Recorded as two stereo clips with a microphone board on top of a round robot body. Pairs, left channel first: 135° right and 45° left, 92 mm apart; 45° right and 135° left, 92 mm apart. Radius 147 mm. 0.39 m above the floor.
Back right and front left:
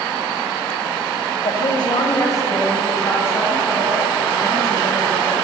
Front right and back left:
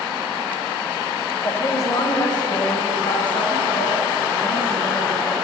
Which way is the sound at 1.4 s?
105° right.